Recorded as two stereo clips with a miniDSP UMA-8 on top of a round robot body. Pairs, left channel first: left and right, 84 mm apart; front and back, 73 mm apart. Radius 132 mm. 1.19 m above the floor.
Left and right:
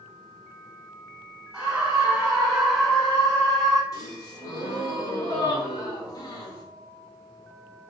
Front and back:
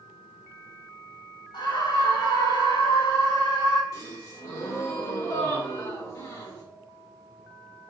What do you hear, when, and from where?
1.5 s a scream: 5° right, 4.5 m; by 3.8 s 10° left, 4 m
3.9 s a gasp: 40° left, 3 m